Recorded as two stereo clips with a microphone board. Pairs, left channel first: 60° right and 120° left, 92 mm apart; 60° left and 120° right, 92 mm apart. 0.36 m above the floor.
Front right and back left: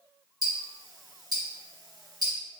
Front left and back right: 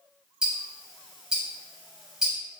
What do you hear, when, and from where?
0.4 s ticking: 160° left, 0.8 m